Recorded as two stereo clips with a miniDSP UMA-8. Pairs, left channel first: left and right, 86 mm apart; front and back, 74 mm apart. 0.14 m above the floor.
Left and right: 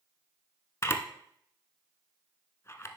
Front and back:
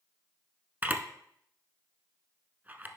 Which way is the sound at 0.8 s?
125° left.